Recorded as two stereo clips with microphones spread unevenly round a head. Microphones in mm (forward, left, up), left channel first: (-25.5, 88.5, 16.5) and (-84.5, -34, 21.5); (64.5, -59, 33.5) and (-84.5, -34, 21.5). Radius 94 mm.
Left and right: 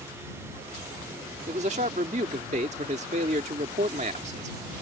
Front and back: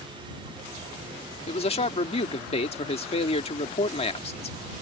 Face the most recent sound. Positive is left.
turn(degrees=-60)